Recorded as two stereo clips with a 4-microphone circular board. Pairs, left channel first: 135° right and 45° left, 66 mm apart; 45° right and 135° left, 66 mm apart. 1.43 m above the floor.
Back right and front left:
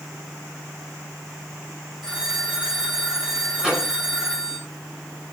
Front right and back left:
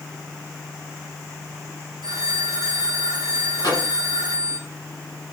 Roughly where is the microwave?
Ahead right.